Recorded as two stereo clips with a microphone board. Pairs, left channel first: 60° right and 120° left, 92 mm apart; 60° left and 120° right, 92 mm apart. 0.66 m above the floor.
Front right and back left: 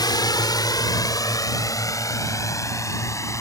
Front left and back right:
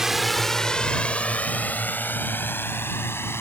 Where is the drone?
35° right; by 3.4 s 5° right.